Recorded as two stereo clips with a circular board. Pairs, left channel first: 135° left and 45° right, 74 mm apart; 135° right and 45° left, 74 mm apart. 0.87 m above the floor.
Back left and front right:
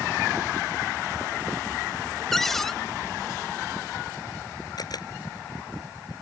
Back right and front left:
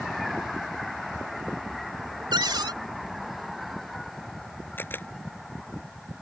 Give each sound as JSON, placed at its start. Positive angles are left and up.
{"t": 2.3, "sound": "a cupboard door", "azimuth_deg": 50}
{"t": 4.8, "sound": "a camera shutter", "azimuth_deg": 165}